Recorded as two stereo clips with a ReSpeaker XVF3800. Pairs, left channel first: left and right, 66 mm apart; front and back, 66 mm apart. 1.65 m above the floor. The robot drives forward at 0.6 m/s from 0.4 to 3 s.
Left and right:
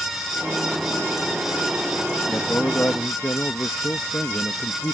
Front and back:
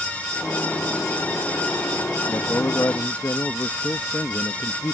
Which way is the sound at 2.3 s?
35° left.